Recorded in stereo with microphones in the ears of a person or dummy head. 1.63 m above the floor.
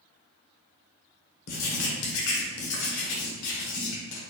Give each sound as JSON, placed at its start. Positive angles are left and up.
{"t": 1.5, "sound": "writing", "side_deg": 75, "distance_m": 1.0}